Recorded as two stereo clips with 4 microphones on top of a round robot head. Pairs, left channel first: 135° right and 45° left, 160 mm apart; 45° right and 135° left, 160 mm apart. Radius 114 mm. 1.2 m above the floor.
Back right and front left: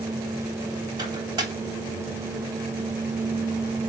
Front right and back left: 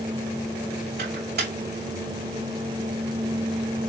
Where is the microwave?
110° left, 3 m.